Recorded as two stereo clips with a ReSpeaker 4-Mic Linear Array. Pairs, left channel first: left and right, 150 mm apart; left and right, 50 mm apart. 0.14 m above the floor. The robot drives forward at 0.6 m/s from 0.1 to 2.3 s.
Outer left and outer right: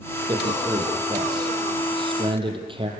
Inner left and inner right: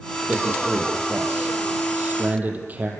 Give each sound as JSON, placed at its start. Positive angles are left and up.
{"t": 0.3, "sound": "a man speaking", "side_deg": -25, "distance_m": 6.5}